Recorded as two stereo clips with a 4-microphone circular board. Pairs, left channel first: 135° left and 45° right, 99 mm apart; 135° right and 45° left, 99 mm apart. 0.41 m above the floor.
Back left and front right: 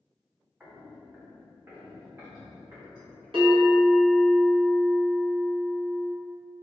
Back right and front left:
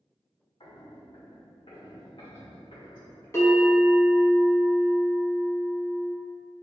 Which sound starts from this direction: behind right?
Footsteps, at 0.6 s.